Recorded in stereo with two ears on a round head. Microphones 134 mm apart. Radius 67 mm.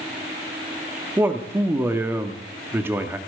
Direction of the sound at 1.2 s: 15° right (ahead or behind).